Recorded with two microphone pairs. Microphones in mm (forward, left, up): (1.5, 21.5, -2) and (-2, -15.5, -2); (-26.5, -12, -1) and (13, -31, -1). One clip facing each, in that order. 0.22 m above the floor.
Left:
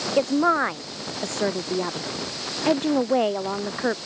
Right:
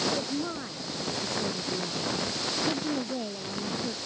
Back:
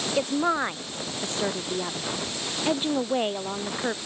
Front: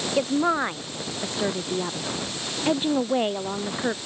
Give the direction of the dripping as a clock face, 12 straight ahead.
No dripping in this recording.